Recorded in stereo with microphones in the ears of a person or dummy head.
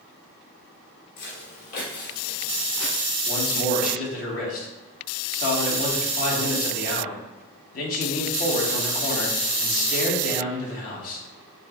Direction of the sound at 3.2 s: 50° left (ahead or behind).